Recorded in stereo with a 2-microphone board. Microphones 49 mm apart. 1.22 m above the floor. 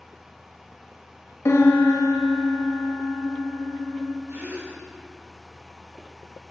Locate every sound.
1.4 s a piano: 75° left (ahead or behind), 1.5 m
4.3 s a gasp: 55° right (ahead or behind), 4.5 m